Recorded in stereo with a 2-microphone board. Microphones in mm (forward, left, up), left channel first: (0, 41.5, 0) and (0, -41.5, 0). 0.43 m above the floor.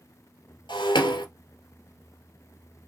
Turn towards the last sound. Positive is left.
turn(degrees=75)  # may be behind; listen again after turning